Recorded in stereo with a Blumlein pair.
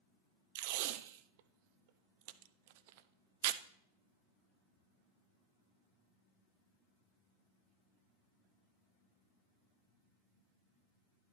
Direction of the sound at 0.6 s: 50° right.